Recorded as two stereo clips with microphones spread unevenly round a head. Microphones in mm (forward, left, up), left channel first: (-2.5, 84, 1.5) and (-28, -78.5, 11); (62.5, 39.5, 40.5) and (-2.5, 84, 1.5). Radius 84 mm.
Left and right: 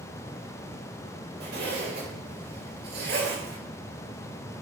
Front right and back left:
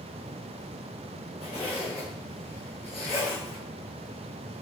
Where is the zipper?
130° right, 5 m.